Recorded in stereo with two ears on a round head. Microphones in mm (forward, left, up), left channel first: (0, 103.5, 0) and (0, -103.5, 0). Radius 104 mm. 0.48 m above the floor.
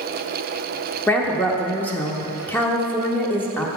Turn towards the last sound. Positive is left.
turn(degrees=5)  # may be behind; listen again after turning